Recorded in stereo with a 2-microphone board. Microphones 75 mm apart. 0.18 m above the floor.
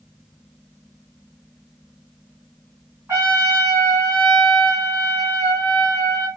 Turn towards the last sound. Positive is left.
turn(degrees=-40)  # may be behind; listen again after turning